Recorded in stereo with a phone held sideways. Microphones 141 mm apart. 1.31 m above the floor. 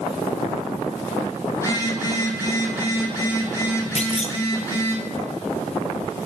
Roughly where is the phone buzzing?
Left.